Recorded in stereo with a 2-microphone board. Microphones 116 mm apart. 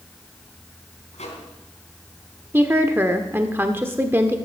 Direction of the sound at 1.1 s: 75° left (ahead or behind).